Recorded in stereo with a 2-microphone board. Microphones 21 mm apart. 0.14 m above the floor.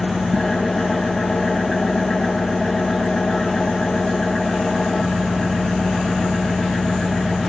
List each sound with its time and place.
0.0 s an engine running: 40° left (ahead or behind), 7.5 m